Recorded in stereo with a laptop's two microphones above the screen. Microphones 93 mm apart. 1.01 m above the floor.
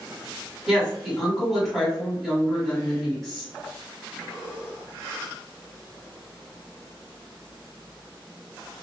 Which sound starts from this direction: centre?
A woman speaking, at 0.7 s.